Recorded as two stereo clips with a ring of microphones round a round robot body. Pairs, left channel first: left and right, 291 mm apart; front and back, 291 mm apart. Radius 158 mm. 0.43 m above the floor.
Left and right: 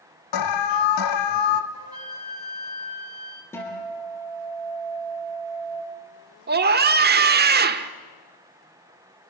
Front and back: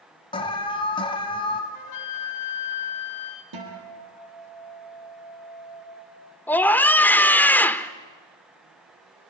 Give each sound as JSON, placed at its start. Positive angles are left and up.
{"t": 0.3, "sound": "an alarm", "azimuth_deg": 75, "distance_m": 1.6}
{"t": 1.7, "sound": "a flute", "azimuth_deg": -10, "distance_m": 2.0}
{"t": 3.5, "sound": "a guitar", "azimuth_deg": 170, "distance_m": 7.0}
{"t": 6.5, "sound": "a scream", "azimuth_deg": -80, "distance_m": 1.3}